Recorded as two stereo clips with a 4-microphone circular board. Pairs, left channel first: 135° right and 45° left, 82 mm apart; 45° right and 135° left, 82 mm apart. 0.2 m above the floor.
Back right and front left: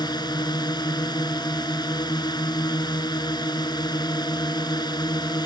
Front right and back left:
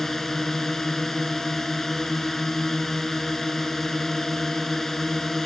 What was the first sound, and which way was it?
A drone, 130° right.